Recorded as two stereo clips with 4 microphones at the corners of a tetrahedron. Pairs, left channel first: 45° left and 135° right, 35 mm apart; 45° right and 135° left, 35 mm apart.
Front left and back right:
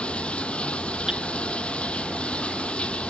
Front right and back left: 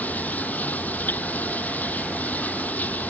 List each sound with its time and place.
0.0 s running water: 10° right
1.1 s hammering: 60° right